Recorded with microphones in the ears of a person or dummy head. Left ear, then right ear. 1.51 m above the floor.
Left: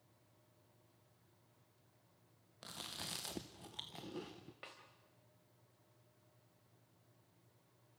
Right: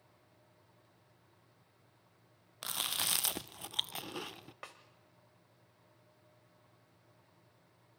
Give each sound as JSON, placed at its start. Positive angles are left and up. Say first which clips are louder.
{"t": 2.6, "sound": "chewing", "louder": "right 12 dB", "side_deg": -40, "distance_m": 0.6}
{"t": 4.6, "sound": "a snare drum", "louder": "right 4 dB", "side_deg": -40, "distance_m": 2.5}